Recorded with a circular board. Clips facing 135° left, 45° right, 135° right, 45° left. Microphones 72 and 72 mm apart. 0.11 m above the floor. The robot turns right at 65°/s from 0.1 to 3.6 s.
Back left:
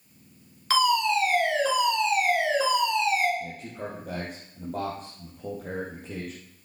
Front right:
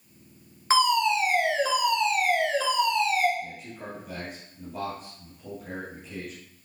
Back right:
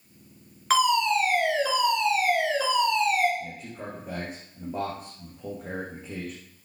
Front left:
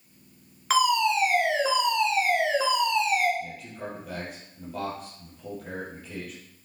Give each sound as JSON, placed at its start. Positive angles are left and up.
{"t": 0.7, "sound": "a fire alarm", "azimuth_deg": -45, "distance_m": 2.5}
{"t": 3.4, "sound": "a man speaking", "azimuth_deg": 150, "distance_m": 3.5}